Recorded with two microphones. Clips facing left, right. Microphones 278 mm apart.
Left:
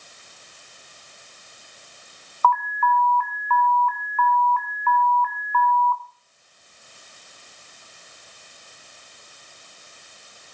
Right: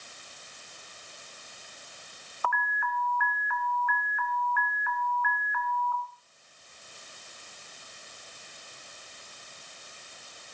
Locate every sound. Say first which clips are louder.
2.4 s an alarm: left 11 dB; 15° right (ahead or behind), 1.7 m